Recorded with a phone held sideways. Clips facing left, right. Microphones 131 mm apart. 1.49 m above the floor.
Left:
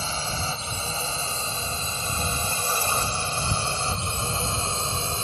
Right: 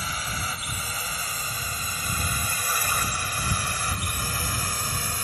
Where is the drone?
30° left (ahead or behind); by 5.2 s 25° left (ahead or behind).